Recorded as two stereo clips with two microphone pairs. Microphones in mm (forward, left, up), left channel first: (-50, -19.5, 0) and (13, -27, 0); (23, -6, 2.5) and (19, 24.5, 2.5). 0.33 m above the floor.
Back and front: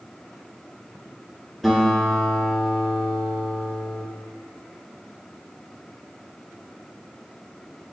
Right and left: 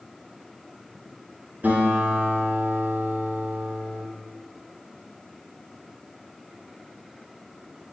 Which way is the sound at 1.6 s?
85° left.